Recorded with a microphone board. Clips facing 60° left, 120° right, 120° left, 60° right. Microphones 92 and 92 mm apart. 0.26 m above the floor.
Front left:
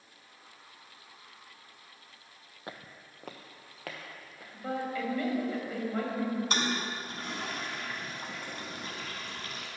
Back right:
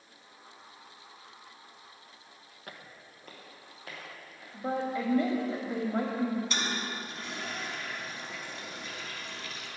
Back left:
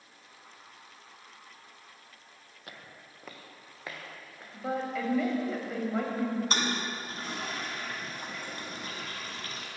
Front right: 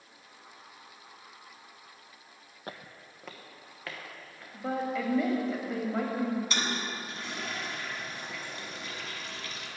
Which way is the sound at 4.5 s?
150° right.